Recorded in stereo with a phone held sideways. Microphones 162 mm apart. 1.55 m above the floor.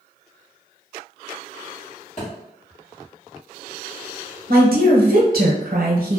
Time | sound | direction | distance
2.2 | a thud | 45° left (ahead or behind) | 1.3 m
4.5 | a woman speaking | 70° right (ahead or behind) | 0.7 m